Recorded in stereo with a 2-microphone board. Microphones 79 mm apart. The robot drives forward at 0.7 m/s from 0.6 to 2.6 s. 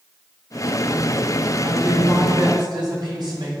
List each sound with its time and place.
1.6 s a woman speaking: 60° right (ahead or behind), 5.5 m; by 3.5 s 65° right (ahead or behind), 5 m